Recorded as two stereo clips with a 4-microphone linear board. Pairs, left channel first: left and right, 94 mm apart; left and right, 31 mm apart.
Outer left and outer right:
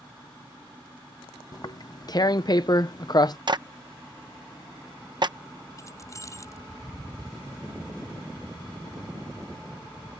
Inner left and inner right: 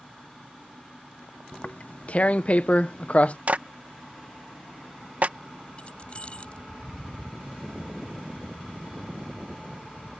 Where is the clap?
50° right (ahead or behind).